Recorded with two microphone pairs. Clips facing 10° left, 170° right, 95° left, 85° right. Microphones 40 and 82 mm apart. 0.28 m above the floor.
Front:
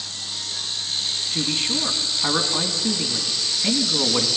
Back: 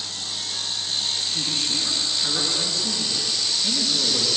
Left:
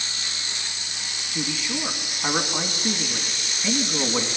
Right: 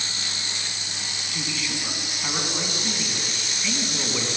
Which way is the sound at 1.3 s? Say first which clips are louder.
Front 2 dB, left 4 dB; 35° left.